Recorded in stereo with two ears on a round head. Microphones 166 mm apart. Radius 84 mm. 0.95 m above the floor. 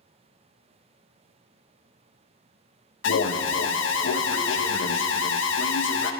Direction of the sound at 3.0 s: 70° left (ahead or behind).